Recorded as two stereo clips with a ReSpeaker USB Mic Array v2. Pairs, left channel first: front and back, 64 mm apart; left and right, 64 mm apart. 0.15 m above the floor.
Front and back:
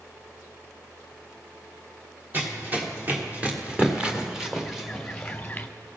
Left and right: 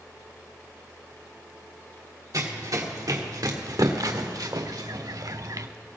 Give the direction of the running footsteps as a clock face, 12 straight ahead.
4 o'clock.